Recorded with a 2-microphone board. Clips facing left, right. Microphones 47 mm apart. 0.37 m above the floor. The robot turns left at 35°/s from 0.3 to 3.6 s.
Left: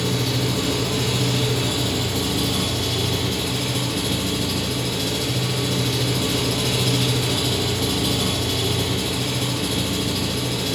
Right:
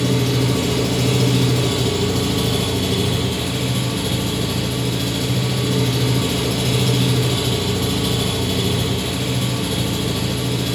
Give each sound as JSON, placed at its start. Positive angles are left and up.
{"t": 0.0, "sound": "an engine running", "azimuth_deg": -60, "distance_m": 4.5}